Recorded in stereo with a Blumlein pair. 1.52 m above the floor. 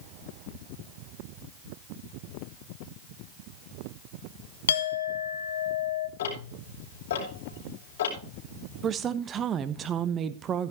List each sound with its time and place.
4.7 s a clink: 65° left, 1.3 m
6.2 s ticking: 60° left, 5 m
8.8 s a woman speaking: 25° right, 1.3 m